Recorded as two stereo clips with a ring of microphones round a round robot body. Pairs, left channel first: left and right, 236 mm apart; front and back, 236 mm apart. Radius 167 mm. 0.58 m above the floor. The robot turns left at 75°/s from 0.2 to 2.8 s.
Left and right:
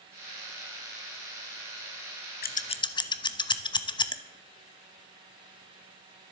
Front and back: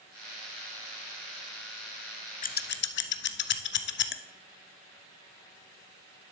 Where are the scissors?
50° left, 0.6 m; by 4.2 s 20° left, 0.6 m.